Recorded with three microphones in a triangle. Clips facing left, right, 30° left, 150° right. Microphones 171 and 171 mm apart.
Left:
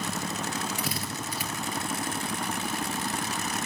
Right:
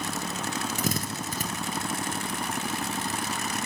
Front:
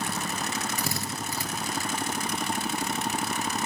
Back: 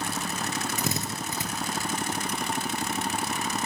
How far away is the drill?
About 2.5 m.